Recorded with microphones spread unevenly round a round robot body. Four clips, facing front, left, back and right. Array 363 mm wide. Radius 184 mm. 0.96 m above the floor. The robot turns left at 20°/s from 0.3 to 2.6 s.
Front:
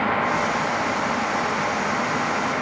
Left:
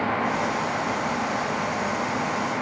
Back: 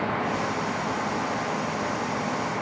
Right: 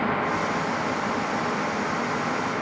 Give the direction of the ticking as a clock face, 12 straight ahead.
No ticking in this recording.